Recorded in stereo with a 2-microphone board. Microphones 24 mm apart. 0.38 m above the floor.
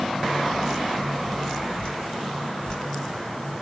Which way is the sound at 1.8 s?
45° left (ahead or behind).